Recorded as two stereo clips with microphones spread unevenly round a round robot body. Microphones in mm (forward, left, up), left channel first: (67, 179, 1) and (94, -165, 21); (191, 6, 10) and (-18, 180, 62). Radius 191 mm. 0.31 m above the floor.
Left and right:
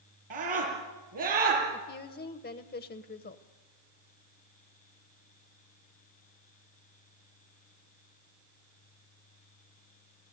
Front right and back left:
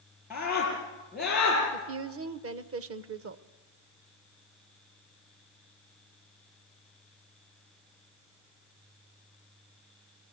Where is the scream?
135° right, 6 m; by 1.6 s 130° right, 7 m.